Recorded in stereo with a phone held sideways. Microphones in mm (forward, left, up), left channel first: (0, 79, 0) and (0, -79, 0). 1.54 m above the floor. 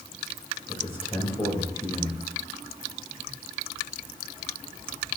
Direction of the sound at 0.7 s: 35° left (ahead or behind).